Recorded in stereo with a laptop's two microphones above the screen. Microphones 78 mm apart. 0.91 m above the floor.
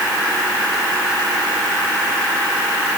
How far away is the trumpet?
I don't hear a trumpet.